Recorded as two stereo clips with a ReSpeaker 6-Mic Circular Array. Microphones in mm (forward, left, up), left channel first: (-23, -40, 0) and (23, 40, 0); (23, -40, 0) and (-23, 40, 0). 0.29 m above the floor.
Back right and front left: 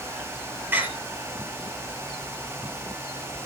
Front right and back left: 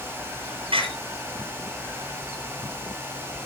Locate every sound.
0.7 s a door slam: 130° left, 6 m